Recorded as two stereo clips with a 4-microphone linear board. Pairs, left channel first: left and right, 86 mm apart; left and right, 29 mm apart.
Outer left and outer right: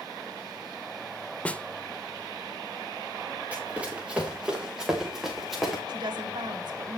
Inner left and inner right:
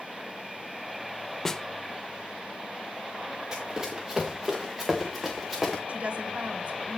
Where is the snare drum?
15° left (ahead or behind), 0.8 m.